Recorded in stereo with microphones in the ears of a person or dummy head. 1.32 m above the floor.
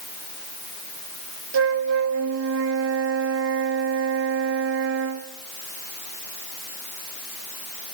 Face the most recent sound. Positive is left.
turn(degrees=-70)  # may be behind; listen again after turning